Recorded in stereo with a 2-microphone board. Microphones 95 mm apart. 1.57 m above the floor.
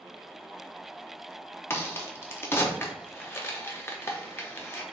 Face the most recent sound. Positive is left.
turn(degrees=25)  # may be behind; listen again after turning